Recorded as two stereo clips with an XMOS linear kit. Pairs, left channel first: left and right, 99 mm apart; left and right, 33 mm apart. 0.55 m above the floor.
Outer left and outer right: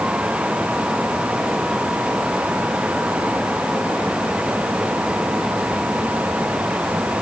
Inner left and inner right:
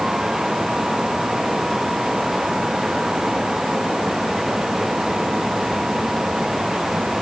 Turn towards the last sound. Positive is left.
No sound to turn to.